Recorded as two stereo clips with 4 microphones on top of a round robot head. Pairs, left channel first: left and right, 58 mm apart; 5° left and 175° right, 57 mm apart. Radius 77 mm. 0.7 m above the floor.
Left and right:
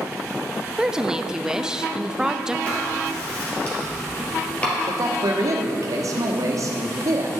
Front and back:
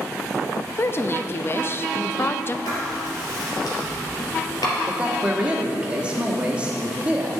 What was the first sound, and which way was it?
A woman speaking, 15° right.